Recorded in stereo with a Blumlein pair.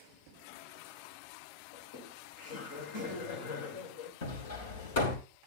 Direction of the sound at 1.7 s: 55° left.